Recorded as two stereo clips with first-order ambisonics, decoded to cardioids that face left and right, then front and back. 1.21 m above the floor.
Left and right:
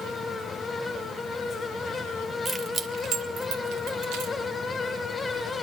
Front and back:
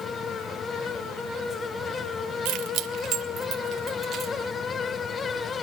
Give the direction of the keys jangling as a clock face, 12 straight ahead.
6 o'clock.